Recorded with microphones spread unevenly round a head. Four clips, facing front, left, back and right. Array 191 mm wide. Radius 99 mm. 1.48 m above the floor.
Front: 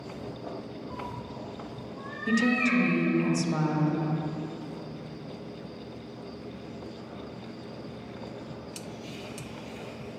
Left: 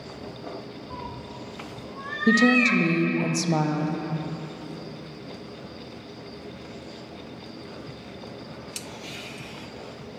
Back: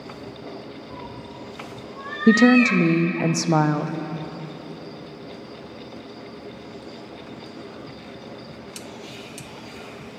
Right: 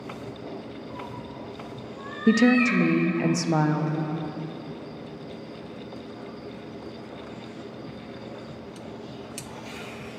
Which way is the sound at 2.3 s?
175° right.